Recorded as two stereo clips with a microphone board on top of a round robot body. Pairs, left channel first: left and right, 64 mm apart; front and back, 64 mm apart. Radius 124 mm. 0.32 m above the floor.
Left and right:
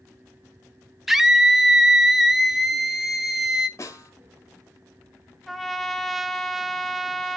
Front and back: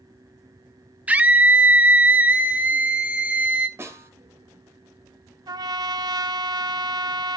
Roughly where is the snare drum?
Behind left.